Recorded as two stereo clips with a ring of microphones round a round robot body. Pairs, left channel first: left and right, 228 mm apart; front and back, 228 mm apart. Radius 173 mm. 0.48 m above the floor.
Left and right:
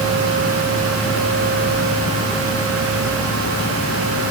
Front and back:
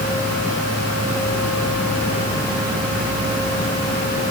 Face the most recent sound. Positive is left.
No sound to turn to.